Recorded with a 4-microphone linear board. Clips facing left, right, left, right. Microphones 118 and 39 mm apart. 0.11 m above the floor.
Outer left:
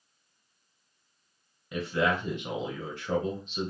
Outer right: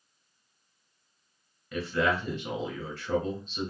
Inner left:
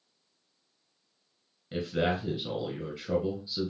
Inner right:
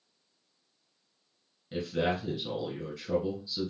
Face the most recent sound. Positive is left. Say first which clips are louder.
# even, inner left 1 dB
turn(degrees=20)  # may be behind; listen again after turning